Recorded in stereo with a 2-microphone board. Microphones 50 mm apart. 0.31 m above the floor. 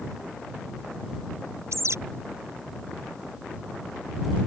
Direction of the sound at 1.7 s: 75° right (ahead or behind).